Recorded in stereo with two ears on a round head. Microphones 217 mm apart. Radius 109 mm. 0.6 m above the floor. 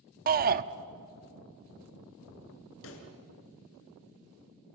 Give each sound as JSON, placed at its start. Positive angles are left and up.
{"t": 0.3, "sound": "a shout", "side_deg": -40, "distance_m": 0.7}
{"t": 2.8, "sound": "a pop", "side_deg": 60, "distance_m": 3.0}